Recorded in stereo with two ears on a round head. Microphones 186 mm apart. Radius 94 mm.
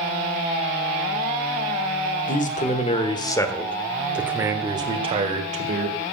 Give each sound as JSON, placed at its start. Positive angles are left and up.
{"t": 2.3, "sound": "a man speaking", "side_deg": 40, "distance_m": 1.7}